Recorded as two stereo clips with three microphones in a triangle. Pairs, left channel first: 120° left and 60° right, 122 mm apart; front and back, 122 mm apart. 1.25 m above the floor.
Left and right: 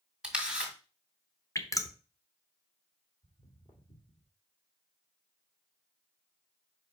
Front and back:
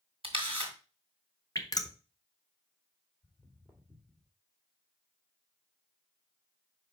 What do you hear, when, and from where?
0.2 s a camera shutter: 145° right, 2 m
1.6 s dripping: 55° left, 0.9 m
3.2 s footsteps: 90° left, 3 m; by 4.3 s 80° left, 2 m